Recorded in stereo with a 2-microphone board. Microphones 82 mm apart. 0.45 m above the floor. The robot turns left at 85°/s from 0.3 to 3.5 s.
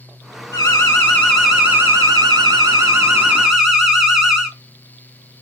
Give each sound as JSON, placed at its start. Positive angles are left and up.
{"t": 0.5, "sound": "an alarm", "azimuth_deg": 75, "distance_m": 1.3}